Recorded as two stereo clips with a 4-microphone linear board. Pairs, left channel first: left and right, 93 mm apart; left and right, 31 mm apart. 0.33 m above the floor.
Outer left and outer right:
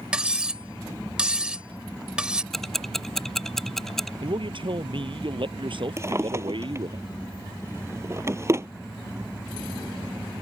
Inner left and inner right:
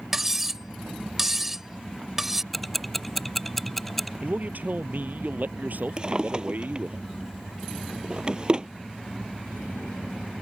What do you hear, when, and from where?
0.1 s cutlery clinking: 10° right (ahead or behind)
2.5 s ticking: 5° left (ahead or behind)
4.2 s a man speaking: 65° right (ahead or behind)
6.0 s a drawer: 30° right (ahead or behind)